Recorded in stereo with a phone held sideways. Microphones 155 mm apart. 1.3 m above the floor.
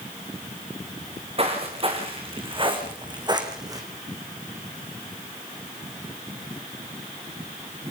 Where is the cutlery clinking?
No cutlery clinking in this recording.